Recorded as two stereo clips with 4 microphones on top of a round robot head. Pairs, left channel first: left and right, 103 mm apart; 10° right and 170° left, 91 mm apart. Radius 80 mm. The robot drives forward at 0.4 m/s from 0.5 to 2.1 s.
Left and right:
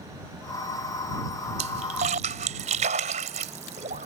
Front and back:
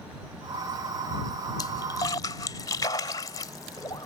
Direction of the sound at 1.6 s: 65° right.